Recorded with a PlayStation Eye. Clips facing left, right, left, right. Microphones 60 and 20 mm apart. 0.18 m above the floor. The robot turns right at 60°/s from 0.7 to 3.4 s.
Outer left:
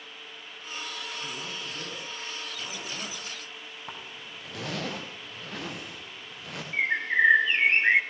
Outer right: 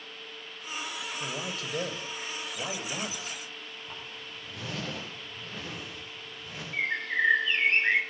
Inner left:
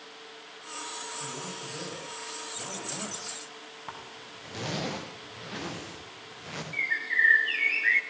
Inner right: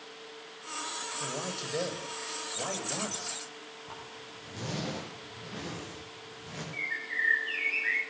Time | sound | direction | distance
1.2 | a man speaking | 125° right | 9.5 m
3.9 | a zipper | 65° left (ahead or behind) | 9 m
6.7 | a bird | 25° left (ahead or behind) | 1.4 m